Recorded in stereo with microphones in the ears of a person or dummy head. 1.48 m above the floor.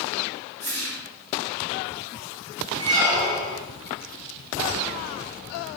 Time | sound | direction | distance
0.6 | a whoosh | 20° left (ahead or behind) | 1.5 m
2.8 | a squeak | 10° right (ahead or behind) | 1.8 m